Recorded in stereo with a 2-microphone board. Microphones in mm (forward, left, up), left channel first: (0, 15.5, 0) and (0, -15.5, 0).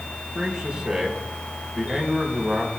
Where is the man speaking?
25° right (ahead or behind), 4.5 m.